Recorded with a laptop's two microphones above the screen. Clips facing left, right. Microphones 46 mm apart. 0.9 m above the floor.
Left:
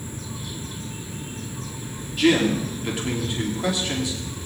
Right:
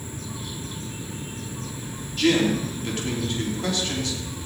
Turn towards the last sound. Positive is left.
turn(degrees=15)  # may be behind; listen again after turning